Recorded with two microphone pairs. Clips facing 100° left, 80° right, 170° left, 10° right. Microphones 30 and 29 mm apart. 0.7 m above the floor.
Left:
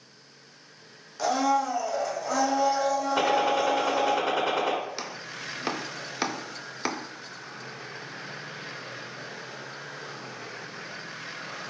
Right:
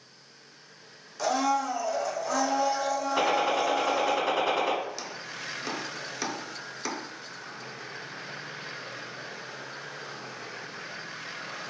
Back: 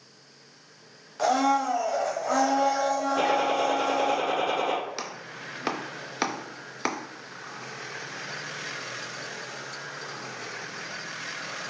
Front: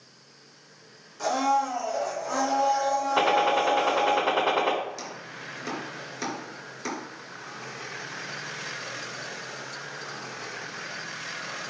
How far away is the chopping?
About 0.6 m.